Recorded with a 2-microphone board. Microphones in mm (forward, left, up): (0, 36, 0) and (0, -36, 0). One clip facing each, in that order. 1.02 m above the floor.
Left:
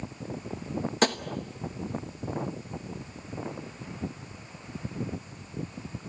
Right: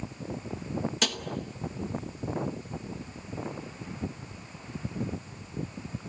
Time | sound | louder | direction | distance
1.0 | tapping | left 10 dB | 40° left (ahead or behind) | 1.0 m